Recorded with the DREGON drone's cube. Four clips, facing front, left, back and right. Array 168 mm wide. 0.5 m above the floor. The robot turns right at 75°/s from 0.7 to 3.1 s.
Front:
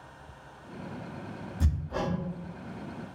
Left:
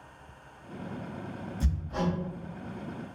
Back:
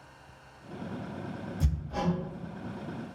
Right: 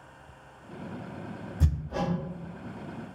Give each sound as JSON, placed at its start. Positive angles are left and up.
{"t": 1.6, "sound": "hammering", "azimuth_deg": -55, "distance_m": 1.1}